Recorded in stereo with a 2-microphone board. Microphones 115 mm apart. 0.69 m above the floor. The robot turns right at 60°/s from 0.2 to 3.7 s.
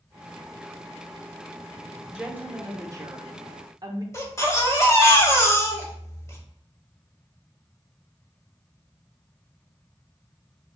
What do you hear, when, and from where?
2.1 s a woman speaking: 170° right, 0.7 m; by 4.0 s 75° right, 0.7 m
4.1 s a baby crying: 25° left (ahead or behind), 0.9 m